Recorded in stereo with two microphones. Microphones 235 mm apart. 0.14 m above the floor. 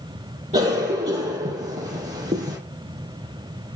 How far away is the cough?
About 2.5 m.